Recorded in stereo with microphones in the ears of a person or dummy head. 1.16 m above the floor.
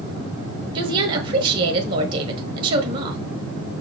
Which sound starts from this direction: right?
A woman speaking, at 0.8 s.